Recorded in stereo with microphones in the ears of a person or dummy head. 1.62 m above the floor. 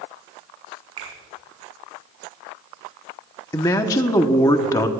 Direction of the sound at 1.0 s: 30° right (ahead or behind).